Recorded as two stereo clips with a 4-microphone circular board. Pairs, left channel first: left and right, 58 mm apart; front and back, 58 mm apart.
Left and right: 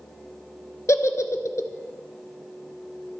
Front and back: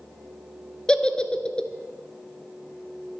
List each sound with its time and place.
0.9 s a giggle: 75° left, 0.9 m